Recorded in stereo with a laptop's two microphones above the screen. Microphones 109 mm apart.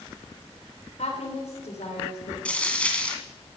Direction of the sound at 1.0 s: 80° left.